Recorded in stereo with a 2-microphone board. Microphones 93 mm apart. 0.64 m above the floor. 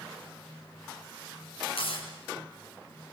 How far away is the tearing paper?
About 5.5 m.